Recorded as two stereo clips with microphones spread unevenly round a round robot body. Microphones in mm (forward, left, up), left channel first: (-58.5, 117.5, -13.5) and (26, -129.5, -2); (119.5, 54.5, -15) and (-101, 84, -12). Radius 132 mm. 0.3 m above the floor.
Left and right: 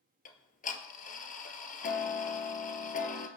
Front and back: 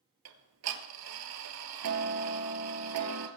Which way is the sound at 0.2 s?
170° left.